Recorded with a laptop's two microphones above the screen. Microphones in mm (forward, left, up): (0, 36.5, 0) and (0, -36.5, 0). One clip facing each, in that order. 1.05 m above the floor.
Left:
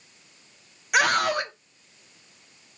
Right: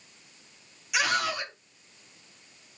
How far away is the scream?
About 1.1 m.